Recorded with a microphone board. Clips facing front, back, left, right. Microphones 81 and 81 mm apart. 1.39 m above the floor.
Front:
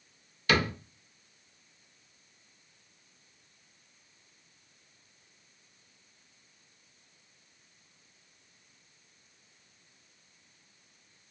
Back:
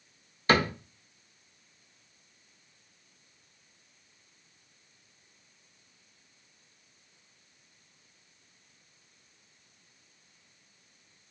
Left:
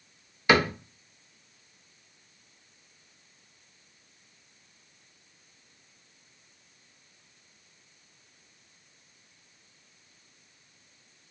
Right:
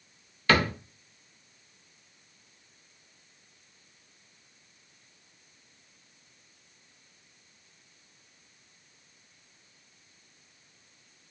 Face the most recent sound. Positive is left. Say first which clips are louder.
# back 3 dB, left 2 dB
turn(degrees=155)